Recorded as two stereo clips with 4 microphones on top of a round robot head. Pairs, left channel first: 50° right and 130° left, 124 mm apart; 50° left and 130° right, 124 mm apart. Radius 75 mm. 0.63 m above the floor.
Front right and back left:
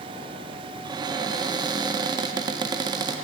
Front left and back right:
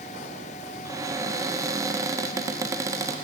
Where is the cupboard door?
175° left, 0.6 m.